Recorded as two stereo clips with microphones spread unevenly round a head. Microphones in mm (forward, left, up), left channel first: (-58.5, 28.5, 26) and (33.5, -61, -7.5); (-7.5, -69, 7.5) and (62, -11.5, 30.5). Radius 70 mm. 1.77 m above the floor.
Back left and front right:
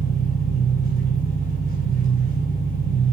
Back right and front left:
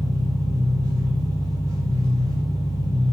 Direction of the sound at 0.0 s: 150° left.